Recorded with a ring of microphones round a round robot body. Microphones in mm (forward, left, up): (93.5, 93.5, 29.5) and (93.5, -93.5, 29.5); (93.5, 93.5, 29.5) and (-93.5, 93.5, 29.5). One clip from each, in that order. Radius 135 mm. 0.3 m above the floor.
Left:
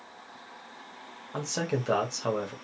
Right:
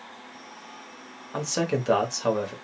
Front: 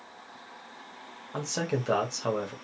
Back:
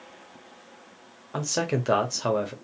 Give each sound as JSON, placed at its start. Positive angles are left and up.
{"t": 1.3, "sound": "a man speaking", "azimuth_deg": -150, "distance_m": 0.9}